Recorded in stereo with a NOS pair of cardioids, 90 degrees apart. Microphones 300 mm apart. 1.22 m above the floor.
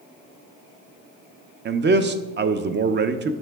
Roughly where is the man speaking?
Ahead right.